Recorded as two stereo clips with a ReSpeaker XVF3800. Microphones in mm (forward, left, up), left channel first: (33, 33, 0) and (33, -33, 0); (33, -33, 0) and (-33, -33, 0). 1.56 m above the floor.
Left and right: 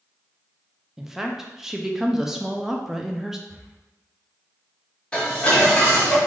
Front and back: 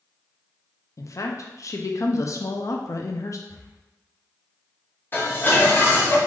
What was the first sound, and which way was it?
A woman speaking, 10° right.